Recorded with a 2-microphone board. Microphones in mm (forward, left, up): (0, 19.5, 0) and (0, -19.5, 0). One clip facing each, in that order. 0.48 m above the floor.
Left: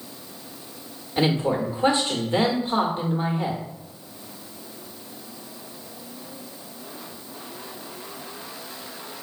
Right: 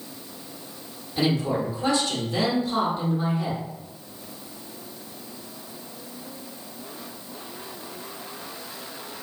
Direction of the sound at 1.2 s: 35° left (ahead or behind).